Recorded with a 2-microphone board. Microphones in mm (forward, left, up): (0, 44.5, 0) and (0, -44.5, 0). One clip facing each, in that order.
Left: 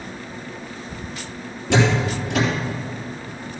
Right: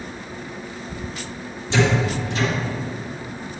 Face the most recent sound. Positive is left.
turn(degrees=75)  # may be behind; listen again after turning